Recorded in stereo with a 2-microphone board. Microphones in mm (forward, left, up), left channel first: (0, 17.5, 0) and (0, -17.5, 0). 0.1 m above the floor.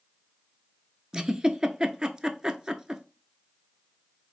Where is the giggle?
20° right (ahead or behind), 0.5 m.